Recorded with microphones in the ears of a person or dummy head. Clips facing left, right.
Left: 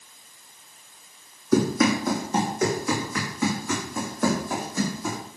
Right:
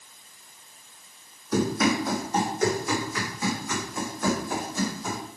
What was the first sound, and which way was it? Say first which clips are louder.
Running footsteps: left 3 dB; 65° left (ahead or behind).